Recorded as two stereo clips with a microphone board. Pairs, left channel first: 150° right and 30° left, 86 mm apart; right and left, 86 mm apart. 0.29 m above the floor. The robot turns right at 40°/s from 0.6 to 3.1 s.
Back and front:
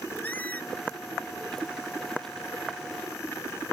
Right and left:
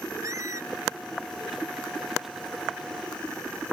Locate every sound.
0.2 s a squeak: 140° left; by 0.7 s 145° left